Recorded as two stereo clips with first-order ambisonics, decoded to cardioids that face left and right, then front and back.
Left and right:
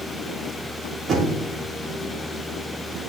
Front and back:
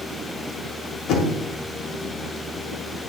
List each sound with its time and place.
1.1 s knocking: 35° right, 1.3 m